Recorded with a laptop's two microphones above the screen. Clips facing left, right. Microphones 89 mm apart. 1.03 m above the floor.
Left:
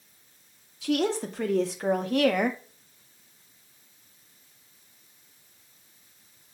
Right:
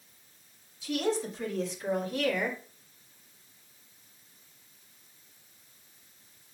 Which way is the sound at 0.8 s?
80° left.